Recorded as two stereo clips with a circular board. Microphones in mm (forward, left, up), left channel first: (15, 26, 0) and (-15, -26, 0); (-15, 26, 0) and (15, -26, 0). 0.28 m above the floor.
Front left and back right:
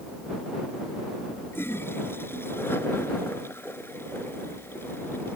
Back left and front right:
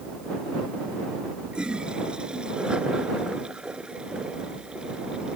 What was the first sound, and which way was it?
A toilet flushing, 15° left.